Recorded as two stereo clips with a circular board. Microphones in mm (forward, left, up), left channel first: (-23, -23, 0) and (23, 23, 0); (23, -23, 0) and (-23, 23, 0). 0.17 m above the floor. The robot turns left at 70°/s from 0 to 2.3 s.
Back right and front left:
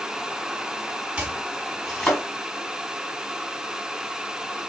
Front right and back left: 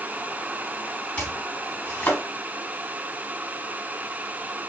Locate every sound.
1.2 s chopping: straight ahead, 1.4 m; by 2.2 s 75° right, 1.4 m